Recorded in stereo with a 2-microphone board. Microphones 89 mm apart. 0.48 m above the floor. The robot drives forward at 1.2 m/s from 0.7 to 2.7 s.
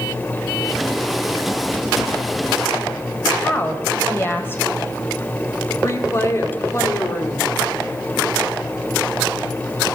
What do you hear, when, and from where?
3.4 s a woman speaking: 25° left (ahead or behind), 2 m
5.8 s a woman speaking: 30° left (ahead or behind), 1.5 m